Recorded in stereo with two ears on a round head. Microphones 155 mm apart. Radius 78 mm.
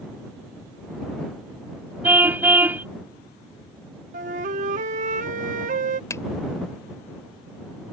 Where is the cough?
No cough in this recording.